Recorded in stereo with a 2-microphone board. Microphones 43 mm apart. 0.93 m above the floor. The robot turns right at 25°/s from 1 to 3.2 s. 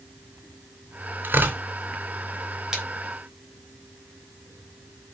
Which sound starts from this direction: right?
Tearing paper, at 1.2 s.